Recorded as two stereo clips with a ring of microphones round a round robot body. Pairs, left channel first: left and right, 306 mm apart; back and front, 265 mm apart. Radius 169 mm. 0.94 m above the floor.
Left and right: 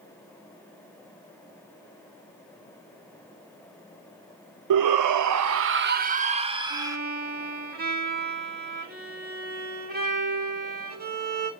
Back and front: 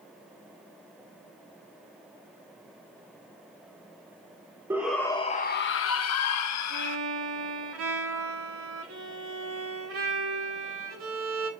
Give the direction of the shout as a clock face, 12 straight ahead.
3 o'clock.